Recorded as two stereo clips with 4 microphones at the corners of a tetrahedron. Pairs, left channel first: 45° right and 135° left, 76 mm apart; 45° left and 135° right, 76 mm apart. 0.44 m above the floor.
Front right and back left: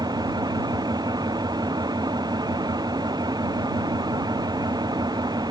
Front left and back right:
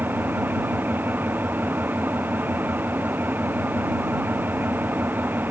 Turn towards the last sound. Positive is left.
turn(degrees=160)